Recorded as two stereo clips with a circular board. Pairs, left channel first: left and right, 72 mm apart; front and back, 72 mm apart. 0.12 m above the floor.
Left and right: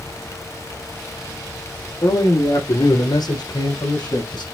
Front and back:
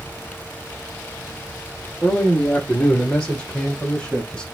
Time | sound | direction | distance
2.0 | a man speaking | 80° left | 3 m